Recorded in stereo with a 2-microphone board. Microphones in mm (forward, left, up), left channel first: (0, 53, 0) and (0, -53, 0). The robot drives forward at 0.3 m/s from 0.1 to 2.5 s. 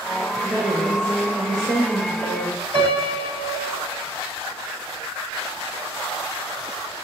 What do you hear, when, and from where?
0.4 s a woman speaking: 40° right (ahead or behind), 2.5 m; by 2.6 s 35° right (ahead or behind), 3 m
2.7 s a piano: 60° right (ahead or behind), 6 m